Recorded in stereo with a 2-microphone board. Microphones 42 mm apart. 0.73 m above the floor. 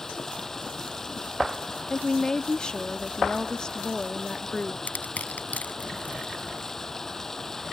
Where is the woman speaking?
20° left (ahead or behind).